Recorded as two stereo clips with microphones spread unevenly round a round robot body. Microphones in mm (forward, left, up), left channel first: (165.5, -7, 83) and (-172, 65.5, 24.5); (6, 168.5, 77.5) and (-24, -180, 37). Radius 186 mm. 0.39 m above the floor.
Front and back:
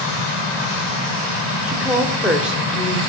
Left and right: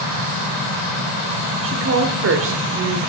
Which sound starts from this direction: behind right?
A woman speaking, at 1.6 s.